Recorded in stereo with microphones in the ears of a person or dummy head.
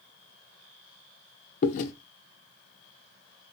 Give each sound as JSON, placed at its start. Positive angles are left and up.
{"t": 1.6, "sound": "chewing", "side_deg": 50, "distance_m": 0.7}